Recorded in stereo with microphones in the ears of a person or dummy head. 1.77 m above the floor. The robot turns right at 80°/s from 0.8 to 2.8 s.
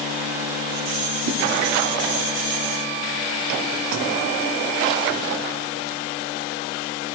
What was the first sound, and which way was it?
A whoosh, 65° right (ahead or behind).